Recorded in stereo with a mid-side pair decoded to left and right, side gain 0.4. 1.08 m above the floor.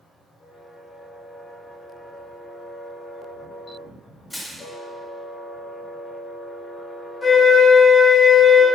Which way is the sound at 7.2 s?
30° left.